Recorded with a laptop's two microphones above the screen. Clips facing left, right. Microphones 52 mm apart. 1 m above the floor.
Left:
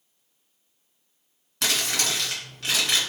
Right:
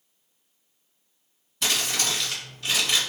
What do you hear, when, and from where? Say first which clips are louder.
1.6 s crumpling: even; 70° left (ahead or behind), 1.8 m